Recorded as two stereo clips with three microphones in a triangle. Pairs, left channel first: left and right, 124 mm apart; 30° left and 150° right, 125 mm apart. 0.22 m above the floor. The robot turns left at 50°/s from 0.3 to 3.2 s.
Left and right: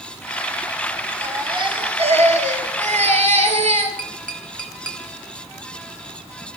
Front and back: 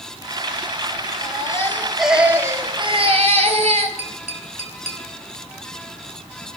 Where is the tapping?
10° left, 3.5 m.